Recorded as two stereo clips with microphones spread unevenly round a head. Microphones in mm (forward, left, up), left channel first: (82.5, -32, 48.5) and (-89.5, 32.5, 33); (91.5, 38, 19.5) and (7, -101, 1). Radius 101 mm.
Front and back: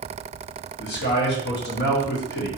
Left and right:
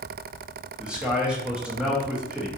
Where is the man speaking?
45° right, 0.9 m.